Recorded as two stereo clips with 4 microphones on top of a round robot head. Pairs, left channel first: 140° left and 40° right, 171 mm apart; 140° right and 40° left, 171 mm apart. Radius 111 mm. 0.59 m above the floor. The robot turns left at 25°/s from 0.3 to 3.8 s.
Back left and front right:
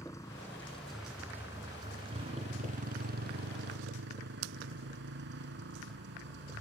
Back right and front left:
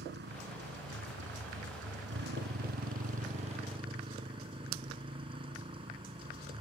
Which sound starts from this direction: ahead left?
A motorcycle, at 0.0 s.